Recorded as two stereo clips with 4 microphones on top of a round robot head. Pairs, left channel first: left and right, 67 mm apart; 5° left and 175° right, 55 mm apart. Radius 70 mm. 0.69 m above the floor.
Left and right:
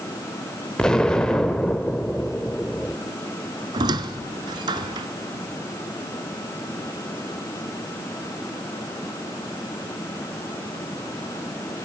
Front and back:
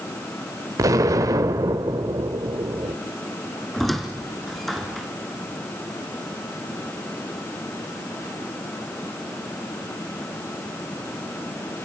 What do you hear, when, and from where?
0.8 s an explosion: 170° left, 1.4 m
3.7 s a squeak: 80° right, 1.4 m